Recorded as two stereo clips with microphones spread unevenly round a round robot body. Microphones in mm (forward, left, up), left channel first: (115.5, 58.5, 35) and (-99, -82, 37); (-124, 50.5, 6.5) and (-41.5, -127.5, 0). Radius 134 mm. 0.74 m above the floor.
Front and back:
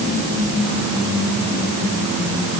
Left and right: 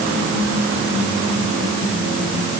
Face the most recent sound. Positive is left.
No sound to turn to.